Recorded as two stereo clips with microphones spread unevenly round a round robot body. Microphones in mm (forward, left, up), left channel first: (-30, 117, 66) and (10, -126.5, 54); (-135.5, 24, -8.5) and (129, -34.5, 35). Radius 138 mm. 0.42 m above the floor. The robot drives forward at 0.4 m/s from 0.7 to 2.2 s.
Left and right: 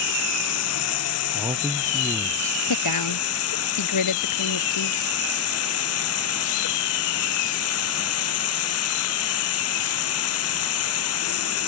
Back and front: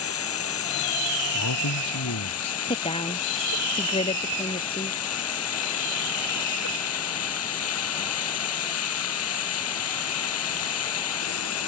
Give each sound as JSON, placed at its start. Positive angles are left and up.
{"t": 0.0, "sound": "running water", "azimuth_deg": 125}
{"t": 1.3, "sound": "a man speaking", "azimuth_deg": -160}
{"t": 2.7, "sound": "a woman speaking", "azimuth_deg": 95}